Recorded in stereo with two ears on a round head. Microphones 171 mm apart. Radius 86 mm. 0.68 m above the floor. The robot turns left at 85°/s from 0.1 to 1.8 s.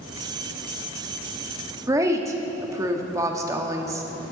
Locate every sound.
1.9 s a woman speaking: 20° right (ahead or behind), 0.9 m